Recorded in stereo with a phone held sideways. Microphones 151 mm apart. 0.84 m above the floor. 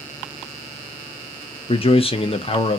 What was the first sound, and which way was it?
A man speaking, 40° left (ahead or behind).